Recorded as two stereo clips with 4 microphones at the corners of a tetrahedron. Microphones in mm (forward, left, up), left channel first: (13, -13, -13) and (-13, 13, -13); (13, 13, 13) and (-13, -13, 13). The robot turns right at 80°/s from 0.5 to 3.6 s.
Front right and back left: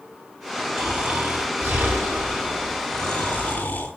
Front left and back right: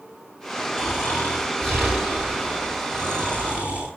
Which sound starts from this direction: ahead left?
Snoring, at 0.8 s.